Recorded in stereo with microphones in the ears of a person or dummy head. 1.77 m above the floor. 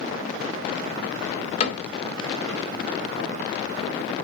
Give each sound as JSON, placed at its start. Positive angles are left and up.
{"t": 1.6, "sound": "a cupboard door", "side_deg": 40, "distance_m": 0.6}